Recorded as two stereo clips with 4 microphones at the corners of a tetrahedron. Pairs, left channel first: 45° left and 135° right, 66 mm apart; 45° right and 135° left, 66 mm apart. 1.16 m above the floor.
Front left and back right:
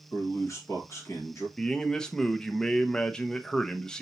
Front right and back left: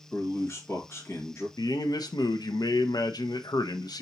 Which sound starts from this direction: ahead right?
A man speaking, at 1.6 s.